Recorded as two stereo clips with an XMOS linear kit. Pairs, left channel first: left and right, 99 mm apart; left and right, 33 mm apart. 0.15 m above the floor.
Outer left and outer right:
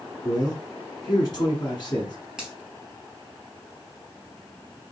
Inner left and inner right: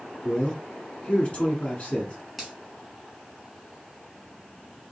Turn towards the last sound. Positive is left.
turn(degrees=-5)  # may be behind; listen again after turning